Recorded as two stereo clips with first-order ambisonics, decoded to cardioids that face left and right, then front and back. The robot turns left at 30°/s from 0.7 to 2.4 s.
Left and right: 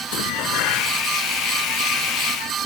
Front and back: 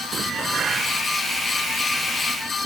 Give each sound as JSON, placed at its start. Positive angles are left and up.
{"t": 0.1, "sound": "dishes clattering", "azimuth_deg": 115}